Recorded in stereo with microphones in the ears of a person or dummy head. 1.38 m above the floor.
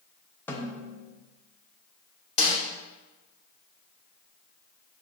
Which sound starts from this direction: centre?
A snare drum, at 0.5 s.